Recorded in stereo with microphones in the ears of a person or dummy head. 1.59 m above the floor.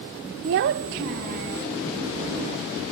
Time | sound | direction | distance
0.4 | a child speaking | 40° right (ahead or behind) | ?